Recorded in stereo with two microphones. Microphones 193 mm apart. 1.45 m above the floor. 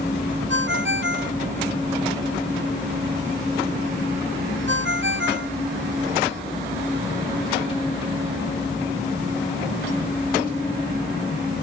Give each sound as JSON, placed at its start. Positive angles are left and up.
{"t": 0.5, "sound": "a ringtone", "side_deg": -65}